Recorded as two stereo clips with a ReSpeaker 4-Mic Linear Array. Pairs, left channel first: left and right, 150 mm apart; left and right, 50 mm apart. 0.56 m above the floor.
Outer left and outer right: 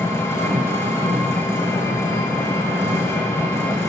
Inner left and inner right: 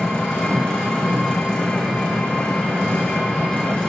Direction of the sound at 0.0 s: 20° left (ahead or behind).